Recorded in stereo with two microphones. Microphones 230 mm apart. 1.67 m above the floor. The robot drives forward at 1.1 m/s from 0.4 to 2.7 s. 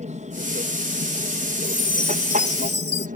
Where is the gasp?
No gasp in this recording.